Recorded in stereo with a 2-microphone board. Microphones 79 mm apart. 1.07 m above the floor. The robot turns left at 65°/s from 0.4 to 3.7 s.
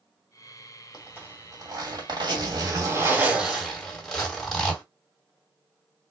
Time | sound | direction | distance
0.9 | a zipper | 10° right | 2.5 m